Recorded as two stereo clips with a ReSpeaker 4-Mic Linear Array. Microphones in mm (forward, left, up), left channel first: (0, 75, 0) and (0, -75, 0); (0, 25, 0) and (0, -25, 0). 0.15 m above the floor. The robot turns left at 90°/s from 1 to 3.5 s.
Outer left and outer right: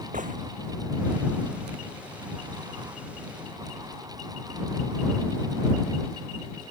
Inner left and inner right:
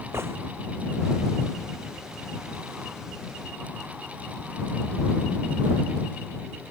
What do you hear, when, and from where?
0.1 s a gunshot: 55° right (ahead or behind)